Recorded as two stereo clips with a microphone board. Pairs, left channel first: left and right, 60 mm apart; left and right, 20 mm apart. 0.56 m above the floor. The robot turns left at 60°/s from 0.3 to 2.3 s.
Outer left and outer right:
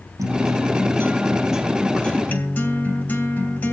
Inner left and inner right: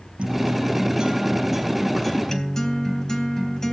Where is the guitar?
95° right, 3 m; by 3.7 s 145° left, 3 m.